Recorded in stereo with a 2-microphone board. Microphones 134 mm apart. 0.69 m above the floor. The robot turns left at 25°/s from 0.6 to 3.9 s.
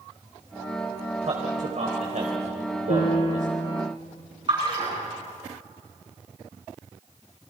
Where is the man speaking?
55° right (ahead or behind), 3 m; by 3.5 s 65° right (ahead or behind), 3 m.